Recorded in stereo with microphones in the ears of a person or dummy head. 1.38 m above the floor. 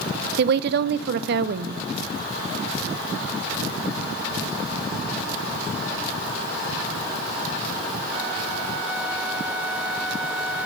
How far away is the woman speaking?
About 0.6 m.